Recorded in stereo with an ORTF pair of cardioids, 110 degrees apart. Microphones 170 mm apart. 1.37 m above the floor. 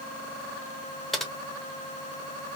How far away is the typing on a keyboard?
About 1.3 m.